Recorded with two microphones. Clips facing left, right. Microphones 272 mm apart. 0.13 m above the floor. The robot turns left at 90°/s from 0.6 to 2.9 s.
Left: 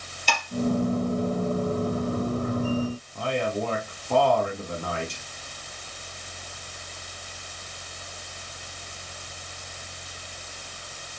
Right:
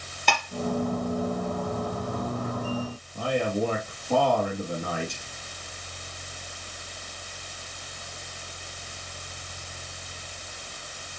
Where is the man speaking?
5° right (ahead or behind), 3.5 m.